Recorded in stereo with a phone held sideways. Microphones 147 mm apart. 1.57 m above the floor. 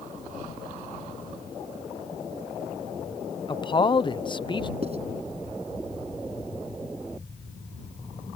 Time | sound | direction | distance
3.5 | a man speaking | 30° left (ahead or behind) | ?
4.8 | writing | 45° right (ahead or behind) | ?